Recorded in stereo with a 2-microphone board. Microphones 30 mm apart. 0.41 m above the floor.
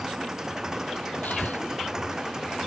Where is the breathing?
65° left (ahead or behind).